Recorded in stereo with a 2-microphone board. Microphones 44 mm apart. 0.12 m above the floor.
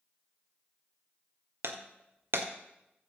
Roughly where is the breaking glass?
Right.